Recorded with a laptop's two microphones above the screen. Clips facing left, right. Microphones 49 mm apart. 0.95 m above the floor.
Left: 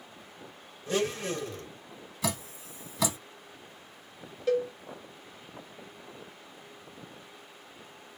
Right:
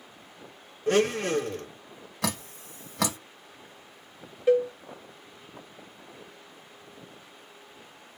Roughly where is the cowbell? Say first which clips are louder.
Right 5 dB; right.